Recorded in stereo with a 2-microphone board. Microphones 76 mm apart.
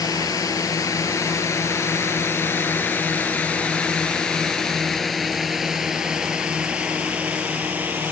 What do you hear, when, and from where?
0.0 s a drone: 55° left (ahead or behind); by 8.1 s 20° right (ahead or behind)